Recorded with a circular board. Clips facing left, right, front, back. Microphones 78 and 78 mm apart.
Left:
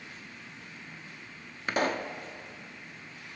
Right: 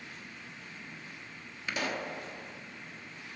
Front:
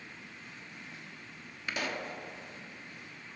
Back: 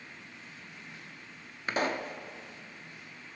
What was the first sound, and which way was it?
A pop, 130° left.